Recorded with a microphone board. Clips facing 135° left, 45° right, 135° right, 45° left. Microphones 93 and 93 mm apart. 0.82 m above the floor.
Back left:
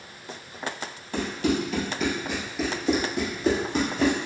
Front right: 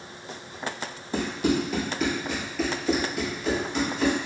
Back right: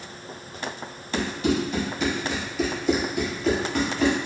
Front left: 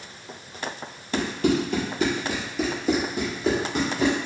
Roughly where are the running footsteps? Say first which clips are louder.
Front right 1 dB, front left 1 dB; ahead left.